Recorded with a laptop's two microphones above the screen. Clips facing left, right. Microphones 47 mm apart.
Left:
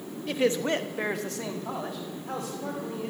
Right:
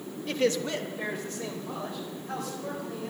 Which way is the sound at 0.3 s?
5° left (ahead or behind).